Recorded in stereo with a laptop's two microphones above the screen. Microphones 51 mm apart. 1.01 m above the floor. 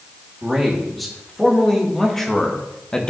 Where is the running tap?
I don't hear a running tap.